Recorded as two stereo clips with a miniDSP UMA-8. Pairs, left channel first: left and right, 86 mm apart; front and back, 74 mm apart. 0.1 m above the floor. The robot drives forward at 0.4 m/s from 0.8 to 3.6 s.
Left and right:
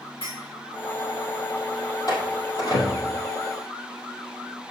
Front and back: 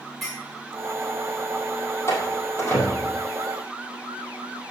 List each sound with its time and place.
0.2 s a clink: 85° left, 4.5 m
2.1 s a door slam: 50° left, 2.5 m; by 3.2 s 60° left, 2 m